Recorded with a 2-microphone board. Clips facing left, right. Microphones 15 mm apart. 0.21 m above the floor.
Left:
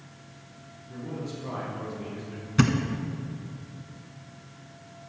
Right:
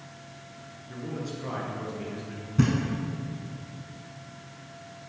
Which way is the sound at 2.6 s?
55° left (ahead or behind).